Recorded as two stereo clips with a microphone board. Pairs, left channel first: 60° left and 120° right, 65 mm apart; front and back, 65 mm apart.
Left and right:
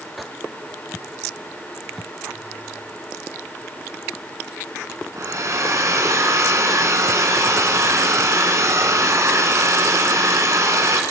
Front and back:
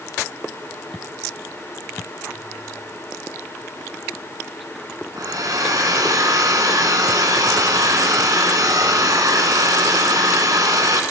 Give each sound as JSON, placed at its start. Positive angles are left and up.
{"t": 5.2, "sound": "a hair dryer", "azimuth_deg": -160, "distance_m": 2.0}